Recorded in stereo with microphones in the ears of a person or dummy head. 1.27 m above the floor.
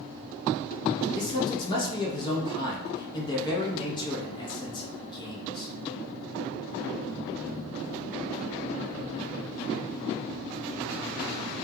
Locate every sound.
1.1 s a man speaking: 20° left (ahead or behind), 0.7 m